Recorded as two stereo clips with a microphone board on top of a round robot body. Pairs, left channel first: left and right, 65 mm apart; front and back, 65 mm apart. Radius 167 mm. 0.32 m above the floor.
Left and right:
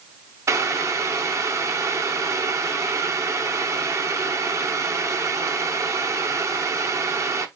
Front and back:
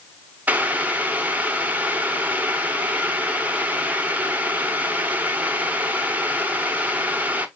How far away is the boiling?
About 0.9 m.